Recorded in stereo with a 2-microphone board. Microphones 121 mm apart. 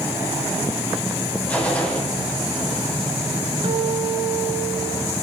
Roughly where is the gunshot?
Centre.